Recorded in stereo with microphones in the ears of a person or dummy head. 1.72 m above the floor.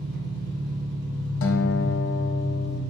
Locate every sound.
0.0 s an engine running: 60° right (ahead or behind), 1.5 m
1.4 s a guitar: 75° left (ahead or behind), 0.5 m